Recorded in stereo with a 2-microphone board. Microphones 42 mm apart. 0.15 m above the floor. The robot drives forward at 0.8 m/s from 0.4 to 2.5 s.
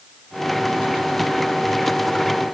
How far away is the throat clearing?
I don't hear throat clearing.